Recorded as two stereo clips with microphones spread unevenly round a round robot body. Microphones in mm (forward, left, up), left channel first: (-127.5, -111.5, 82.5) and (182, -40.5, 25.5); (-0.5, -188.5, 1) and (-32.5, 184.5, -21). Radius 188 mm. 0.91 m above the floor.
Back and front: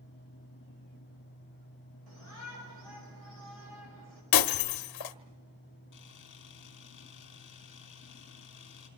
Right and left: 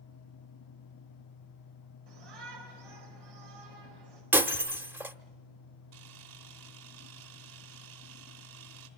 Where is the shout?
65° left, 4.5 m.